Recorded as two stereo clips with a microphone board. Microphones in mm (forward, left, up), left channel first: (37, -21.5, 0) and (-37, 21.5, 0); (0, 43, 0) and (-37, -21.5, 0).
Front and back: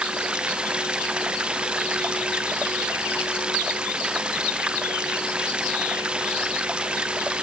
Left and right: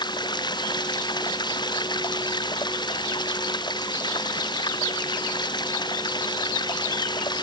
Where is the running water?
70° left.